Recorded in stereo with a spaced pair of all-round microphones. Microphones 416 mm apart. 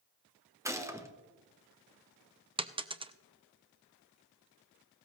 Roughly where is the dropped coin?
Centre.